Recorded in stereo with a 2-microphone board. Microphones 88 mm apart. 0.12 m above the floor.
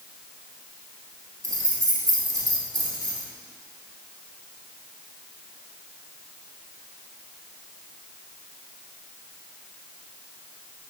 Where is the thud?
I don't hear a thud.